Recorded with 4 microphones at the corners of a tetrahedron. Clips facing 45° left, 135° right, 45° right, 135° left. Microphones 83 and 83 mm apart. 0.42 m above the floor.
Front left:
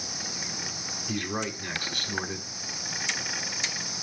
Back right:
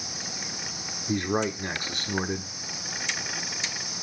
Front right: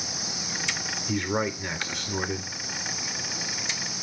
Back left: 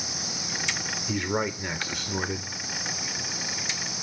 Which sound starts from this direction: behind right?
A man speaking, at 1.1 s.